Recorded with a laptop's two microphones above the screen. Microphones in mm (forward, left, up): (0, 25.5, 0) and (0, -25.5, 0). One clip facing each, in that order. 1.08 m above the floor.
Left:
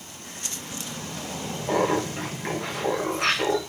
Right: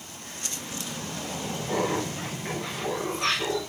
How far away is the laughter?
About 1.8 m.